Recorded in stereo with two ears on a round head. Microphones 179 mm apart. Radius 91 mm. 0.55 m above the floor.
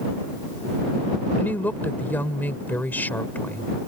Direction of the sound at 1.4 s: 10° left (ahead or behind).